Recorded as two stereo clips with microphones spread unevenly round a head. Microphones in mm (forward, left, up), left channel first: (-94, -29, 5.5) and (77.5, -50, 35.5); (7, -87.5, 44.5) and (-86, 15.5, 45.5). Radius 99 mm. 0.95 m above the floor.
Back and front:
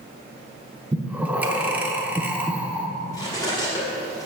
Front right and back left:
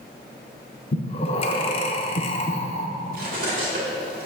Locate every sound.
0.9 s breathing: 75° right, 0.6 m
3.1 s cutlery clinking: 100° left, 1.7 m